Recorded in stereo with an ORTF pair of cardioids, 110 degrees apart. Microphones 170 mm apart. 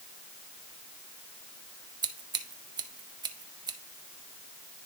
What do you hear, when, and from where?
2.0 s scissors: 25° right, 0.7 m